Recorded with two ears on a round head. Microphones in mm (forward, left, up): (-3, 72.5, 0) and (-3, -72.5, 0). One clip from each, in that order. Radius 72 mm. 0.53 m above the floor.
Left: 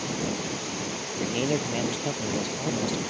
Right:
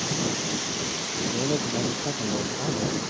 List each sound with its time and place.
1.2 s a man speaking: 65° left (ahead or behind); by 3.0 s 60° left (ahead or behind)